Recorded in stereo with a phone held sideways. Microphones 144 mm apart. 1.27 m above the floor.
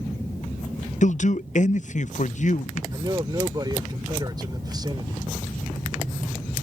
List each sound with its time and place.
1.0 s a man speaking: 60° left (ahead or behind)
2.9 s a man speaking: 30° right (ahead or behind)